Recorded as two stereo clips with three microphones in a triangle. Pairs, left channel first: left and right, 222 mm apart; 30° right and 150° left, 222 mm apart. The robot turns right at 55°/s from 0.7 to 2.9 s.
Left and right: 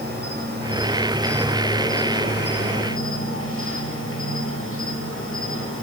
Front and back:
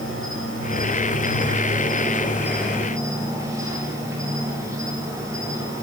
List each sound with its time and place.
0.0 s an insect: 45° right, 6.5 m; by 5.8 s 75° left, 6.5 m